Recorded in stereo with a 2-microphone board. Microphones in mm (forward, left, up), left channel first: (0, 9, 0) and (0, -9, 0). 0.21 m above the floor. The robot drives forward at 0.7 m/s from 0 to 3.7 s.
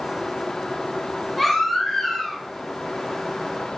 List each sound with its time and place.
1.4 s a baby crying: 5° left (ahead or behind), 4.5 m